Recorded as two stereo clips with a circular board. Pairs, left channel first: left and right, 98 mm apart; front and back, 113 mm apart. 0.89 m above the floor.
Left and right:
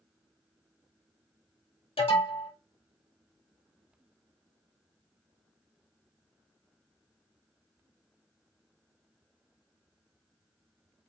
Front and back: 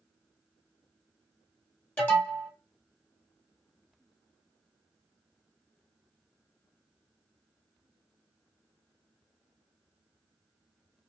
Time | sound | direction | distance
2.0 | an alarm | 75° left | 1.2 m